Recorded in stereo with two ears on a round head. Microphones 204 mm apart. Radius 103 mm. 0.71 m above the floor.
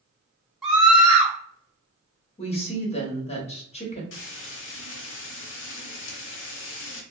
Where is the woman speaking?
30° left (ahead or behind), 1.0 m.